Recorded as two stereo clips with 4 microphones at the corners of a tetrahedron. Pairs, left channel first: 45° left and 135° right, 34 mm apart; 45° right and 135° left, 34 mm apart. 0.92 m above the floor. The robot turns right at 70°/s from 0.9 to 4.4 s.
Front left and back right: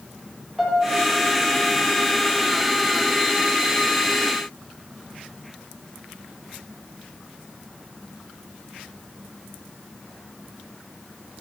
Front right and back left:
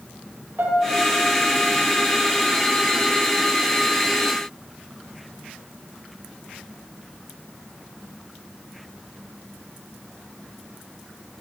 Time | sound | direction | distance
0.6 | a piano | 145° left | 1.5 m